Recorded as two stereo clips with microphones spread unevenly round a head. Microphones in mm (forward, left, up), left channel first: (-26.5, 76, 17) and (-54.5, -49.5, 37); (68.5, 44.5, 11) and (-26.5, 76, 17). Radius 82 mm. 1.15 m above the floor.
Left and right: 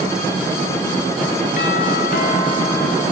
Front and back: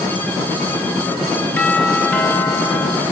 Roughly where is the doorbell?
Ahead left.